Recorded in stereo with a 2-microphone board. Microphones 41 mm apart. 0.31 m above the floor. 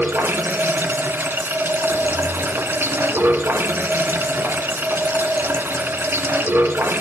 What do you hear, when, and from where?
0.0 s running water: 70° right (ahead or behind), 2 m
1.9 s footsteps: 60° right (ahead or behind), 0.6 m